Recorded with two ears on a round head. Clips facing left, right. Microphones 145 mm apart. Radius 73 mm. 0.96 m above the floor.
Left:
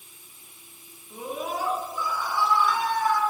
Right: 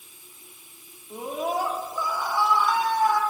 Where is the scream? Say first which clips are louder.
Right 4 dB; 40° right (ahead or behind), 1.4 m.